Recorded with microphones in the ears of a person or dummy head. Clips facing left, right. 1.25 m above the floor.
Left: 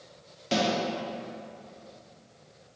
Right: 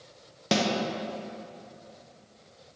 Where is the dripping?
I don't hear dripping.